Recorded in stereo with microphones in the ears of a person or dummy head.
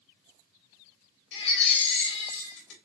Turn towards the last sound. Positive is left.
turn(degrees=65)  # may be behind; listen again after turning